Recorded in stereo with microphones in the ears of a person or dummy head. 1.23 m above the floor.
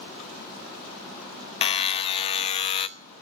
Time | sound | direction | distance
1.6 | a buzzer | 40° left (ahead or behind) | 0.8 m